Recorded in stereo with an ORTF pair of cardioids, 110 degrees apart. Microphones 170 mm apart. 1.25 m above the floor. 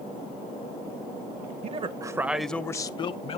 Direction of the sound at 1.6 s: 40° right.